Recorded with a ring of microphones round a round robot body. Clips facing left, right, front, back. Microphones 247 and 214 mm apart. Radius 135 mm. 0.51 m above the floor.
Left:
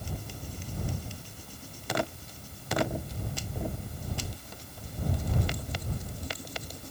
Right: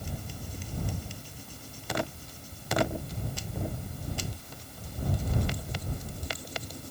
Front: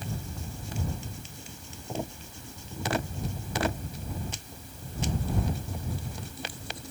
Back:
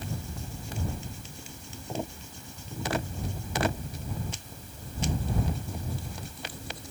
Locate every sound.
Only background noise.